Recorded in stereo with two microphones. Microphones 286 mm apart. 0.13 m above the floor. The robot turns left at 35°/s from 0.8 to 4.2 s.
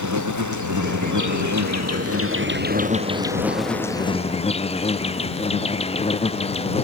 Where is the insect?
80° right; by 6.8 s 160° left.